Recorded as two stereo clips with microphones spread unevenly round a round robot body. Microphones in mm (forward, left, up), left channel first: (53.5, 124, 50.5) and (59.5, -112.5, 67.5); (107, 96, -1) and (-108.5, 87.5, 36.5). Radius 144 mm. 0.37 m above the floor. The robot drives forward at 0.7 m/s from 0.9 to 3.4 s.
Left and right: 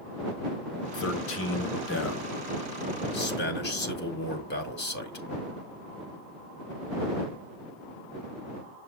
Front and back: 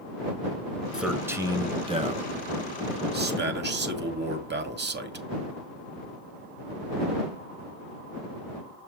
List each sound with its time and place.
0.9 s a man speaking: 90° left, 1.7 m; by 5.2 s 140° left, 2.5 m